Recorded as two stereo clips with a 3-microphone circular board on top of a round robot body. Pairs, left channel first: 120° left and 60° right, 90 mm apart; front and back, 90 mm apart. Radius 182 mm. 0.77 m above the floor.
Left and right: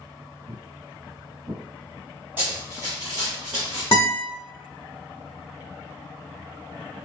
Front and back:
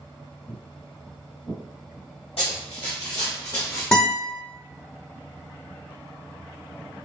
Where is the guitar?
75° left, 0.5 m.